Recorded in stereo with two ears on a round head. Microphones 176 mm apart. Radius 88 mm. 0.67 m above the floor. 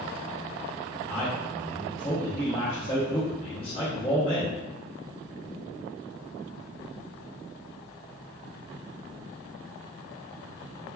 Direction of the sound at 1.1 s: 30° left (ahead or behind).